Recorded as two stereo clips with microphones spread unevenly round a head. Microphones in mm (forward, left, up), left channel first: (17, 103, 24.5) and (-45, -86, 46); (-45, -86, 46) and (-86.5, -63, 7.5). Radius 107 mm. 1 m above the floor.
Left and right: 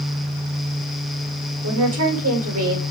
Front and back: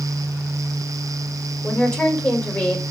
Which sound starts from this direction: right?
A woman speaking, at 1.6 s.